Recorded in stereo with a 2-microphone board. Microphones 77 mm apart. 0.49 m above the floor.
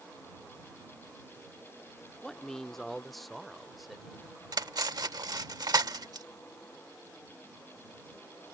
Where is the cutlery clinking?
60° right (ahead or behind).